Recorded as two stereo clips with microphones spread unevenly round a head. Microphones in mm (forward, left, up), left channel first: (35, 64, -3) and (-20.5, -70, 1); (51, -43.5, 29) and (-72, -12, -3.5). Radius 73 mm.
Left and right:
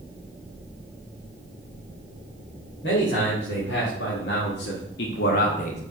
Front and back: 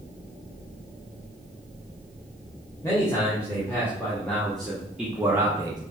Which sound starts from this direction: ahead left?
A man speaking, at 2.8 s.